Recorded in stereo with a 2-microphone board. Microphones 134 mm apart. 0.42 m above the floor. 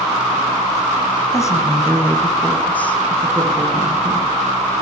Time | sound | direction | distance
1.3 | a woman speaking | 25° left (ahead or behind) | 3 m